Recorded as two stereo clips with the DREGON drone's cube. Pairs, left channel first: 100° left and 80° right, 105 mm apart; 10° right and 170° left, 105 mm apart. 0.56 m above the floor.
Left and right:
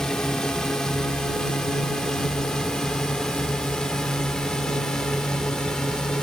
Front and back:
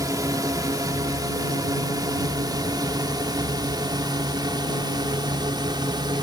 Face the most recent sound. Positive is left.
turn(degrees=-175)